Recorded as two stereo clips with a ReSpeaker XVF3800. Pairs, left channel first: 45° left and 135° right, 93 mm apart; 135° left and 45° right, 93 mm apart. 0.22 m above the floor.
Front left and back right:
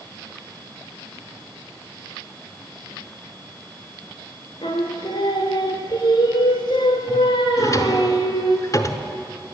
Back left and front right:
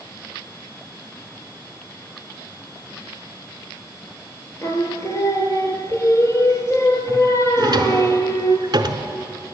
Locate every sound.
4.6 s singing: 80° left, 1.2 m
7.6 s a drawer: 5° right, 0.8 m